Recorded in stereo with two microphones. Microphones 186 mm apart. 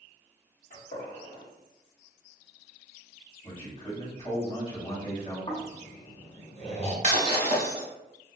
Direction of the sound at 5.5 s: 35° left (ahead or behind).